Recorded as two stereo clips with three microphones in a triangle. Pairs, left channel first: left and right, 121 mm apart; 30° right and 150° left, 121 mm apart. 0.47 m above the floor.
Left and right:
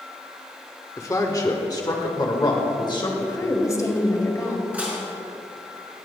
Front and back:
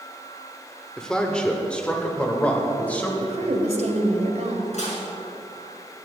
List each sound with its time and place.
1.0 s a man speaking: 50° left, 1.4 m; by 3.1 s 45° left, 2.5 m
3.2 s a woman speaking: 150° left, 1.9 m
4.7 s dishes clattering: 10° right, 4 m